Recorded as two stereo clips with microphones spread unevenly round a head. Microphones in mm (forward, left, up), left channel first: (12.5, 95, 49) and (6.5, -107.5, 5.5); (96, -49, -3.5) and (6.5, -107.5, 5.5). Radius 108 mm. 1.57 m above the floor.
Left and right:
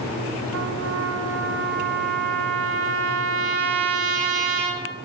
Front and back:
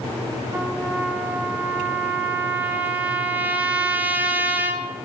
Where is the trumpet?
90° right, 0.9 m.